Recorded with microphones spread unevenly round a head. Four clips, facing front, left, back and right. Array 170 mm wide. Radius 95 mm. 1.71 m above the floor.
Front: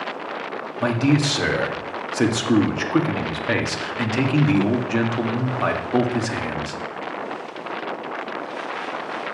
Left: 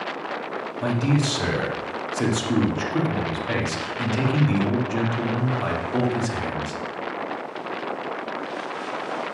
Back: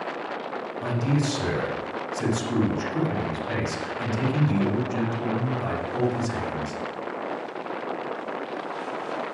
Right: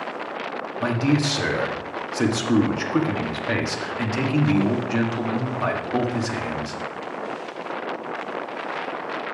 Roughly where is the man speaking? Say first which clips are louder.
Right 2 dB, front 7 dB; ahead.